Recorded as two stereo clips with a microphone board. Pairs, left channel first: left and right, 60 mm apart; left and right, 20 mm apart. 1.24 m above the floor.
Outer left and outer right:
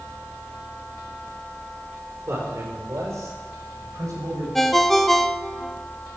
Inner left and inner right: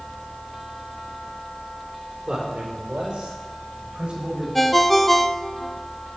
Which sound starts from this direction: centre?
A ringtone, at 4.5 s.